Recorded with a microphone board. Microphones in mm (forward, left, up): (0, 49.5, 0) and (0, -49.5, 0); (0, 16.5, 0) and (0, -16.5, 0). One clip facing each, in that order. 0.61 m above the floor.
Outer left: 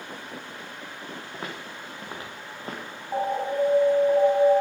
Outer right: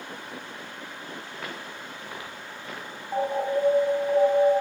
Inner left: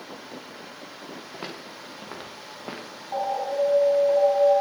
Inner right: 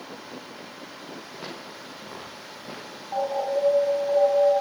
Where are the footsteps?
25° left (ahead or behind), 4 m; by 2.9 s 35° left (ahead or behind), 3.5 m.